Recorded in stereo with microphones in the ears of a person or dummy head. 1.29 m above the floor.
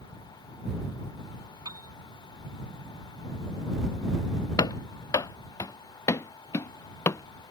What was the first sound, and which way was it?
A piano, 20° right (ahead or behind).